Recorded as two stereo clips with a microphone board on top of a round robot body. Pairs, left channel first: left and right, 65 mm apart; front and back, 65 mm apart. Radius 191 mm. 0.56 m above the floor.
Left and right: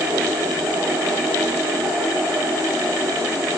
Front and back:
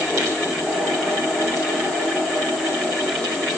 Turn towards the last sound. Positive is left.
No sound to turn to.